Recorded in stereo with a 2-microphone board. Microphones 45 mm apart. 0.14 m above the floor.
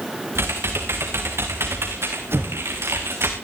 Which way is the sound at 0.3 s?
75° right (ahead or behind).